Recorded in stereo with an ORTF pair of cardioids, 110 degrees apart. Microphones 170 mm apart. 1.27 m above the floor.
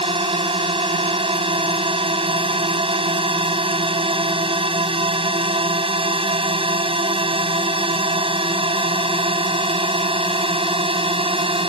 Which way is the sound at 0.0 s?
35° right.